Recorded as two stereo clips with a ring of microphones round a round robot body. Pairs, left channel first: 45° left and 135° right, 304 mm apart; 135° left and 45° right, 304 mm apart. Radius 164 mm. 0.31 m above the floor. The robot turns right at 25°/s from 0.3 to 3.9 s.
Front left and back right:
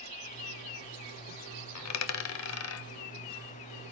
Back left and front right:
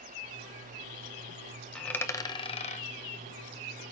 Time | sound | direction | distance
1.8 | a dropped coin | 50° left | 0.8 m